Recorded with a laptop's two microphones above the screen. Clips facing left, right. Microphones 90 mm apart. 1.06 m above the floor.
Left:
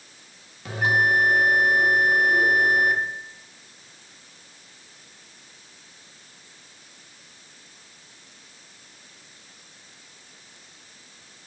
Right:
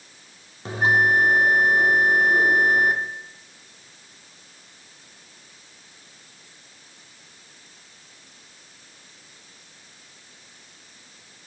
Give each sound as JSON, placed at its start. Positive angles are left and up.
{"t": 0.7, "sound": "a bell", "side_deg": -30, "distance_m": 0.7}